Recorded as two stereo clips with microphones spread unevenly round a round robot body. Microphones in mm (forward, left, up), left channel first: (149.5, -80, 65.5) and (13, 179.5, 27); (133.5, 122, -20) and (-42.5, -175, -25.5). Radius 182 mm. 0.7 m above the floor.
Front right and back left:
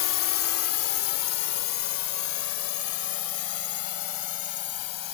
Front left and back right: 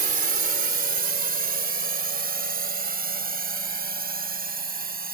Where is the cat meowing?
I don't hear a cat meowing.